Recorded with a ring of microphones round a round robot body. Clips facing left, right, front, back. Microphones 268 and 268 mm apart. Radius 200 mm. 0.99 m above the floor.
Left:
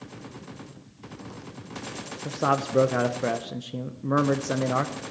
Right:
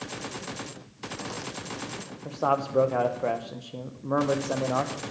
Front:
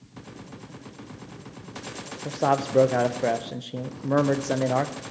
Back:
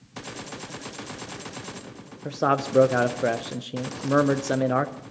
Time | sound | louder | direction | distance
2.2 | a man speaking | left 1 dB, even | 110° left | 0.6 m